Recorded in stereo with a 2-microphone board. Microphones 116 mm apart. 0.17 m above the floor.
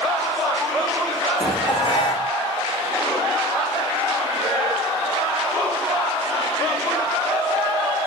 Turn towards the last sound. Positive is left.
turn(degrees=45)  # may be behind; listen again after turning